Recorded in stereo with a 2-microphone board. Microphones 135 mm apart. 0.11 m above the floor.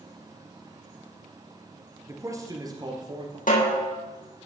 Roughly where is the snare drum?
Left.